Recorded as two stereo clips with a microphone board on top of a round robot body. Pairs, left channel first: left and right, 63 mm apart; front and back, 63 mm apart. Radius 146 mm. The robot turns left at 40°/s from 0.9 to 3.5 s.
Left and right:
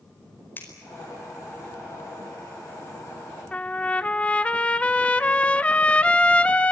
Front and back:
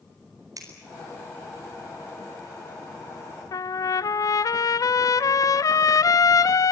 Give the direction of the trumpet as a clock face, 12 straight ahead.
11 o'clock.